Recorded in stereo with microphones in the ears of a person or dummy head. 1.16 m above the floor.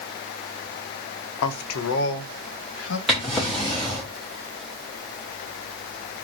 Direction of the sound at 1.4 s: 85° left.